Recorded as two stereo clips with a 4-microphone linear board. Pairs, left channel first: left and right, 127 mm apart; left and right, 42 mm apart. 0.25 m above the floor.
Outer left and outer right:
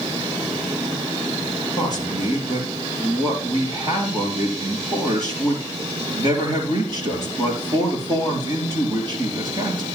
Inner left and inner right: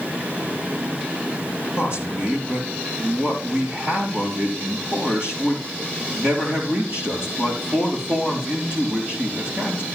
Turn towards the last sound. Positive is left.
turn(degrees=-35)  # may be behind; listen again after turning